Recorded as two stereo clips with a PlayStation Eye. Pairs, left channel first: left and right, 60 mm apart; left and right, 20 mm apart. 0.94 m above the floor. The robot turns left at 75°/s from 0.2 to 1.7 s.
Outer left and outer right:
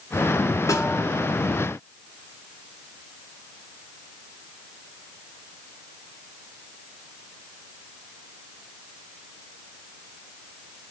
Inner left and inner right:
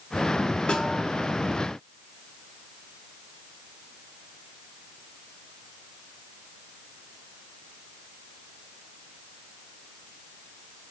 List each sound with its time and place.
0.7 s a snare drum: 60° left (ahead or behind), 1.1 m; by 1.0 s 40° left (ahead or behind), 1.1 m